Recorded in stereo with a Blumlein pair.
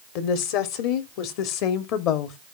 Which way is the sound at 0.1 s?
45° left.